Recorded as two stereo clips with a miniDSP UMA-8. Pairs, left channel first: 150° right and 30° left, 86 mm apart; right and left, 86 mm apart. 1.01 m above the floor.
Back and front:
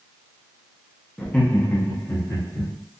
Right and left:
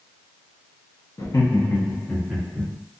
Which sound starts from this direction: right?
Laughter, at 1.2 s.